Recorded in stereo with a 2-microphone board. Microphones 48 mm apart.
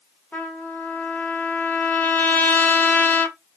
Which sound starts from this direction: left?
A trumpet, at 0.3 s.